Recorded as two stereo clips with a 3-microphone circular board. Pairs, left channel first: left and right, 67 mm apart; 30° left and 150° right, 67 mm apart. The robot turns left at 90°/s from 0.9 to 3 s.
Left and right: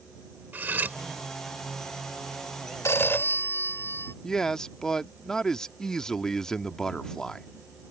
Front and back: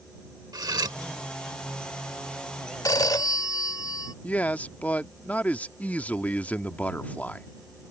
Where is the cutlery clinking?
150° right; by 1.0 s 155° right.